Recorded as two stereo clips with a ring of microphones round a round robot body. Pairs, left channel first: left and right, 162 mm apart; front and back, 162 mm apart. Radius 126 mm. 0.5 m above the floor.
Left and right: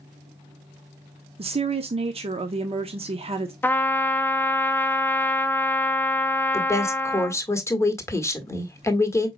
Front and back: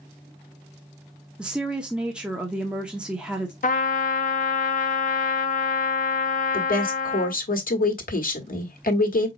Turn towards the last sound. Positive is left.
turn(degrees=20)